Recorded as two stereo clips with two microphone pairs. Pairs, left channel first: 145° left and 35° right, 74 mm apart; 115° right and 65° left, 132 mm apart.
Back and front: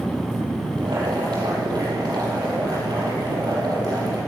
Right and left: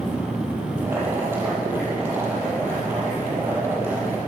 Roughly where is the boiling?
Ahead.